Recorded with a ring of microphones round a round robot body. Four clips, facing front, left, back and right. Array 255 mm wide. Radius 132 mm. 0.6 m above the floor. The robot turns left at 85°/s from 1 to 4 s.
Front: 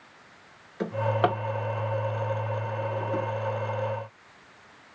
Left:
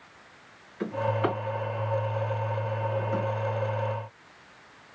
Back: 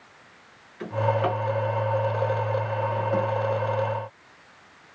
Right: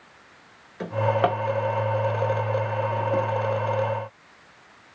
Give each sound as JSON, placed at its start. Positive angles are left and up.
{"t": 0.8, "sound": "a drawer", "azimuth_deg": -30, "distance_m": 1.7}